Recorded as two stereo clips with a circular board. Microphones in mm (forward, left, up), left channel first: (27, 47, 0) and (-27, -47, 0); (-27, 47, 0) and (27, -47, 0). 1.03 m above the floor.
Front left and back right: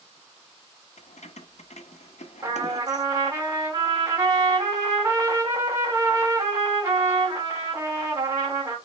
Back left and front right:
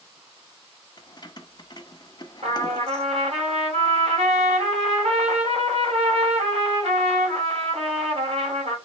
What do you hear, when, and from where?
1.0 s keys jangling: 70° left, 0.6 m
2.4 s a trumpet: 55° right, 2.5 m